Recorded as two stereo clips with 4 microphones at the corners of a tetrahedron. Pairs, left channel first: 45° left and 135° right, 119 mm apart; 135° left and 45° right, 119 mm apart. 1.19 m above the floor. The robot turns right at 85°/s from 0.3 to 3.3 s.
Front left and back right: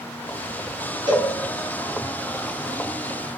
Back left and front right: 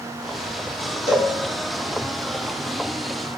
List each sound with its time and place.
1.1 s a cowbell: 170° left, 1.4 m; by 1.3 s 170° right, 1.4 m